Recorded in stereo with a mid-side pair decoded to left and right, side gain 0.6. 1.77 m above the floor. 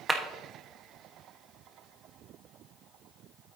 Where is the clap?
15° right, 1.3 m.